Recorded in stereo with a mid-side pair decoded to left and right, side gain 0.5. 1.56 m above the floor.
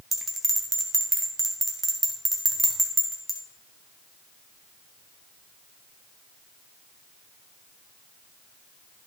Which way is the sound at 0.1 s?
20° right.